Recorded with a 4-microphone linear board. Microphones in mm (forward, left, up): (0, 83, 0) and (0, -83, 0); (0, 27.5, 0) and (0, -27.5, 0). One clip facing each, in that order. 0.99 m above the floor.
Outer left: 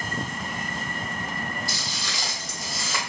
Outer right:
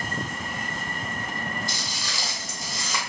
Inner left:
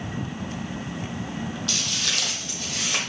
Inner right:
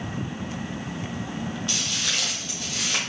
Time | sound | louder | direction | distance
1.7 | footsteps | outer left 1 dB, even | 20° right (ahead or behind) | 1.6 m